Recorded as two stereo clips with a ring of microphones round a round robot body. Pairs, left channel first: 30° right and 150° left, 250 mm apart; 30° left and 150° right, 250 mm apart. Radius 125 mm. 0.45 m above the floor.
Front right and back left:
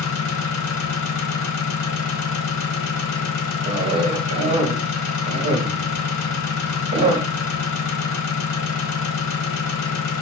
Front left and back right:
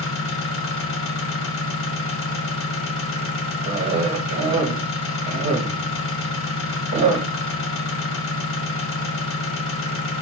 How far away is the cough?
About 0.8 m.